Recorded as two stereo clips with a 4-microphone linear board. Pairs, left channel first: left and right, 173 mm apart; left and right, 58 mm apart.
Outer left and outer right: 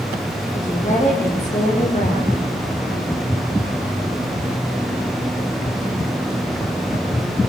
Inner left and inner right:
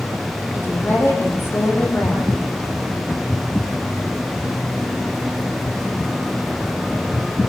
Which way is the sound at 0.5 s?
45° left (ahead or behind).